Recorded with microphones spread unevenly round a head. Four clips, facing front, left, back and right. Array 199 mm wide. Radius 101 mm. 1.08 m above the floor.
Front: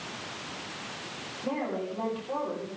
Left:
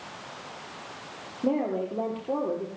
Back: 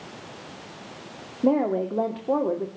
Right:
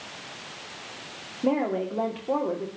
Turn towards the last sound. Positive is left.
turn(degrees=-175)